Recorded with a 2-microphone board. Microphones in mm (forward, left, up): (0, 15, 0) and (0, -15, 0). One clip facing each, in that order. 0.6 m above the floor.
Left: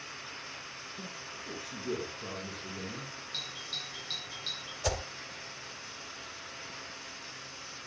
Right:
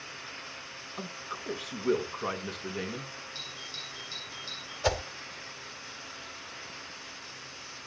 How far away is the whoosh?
About 2.5 m.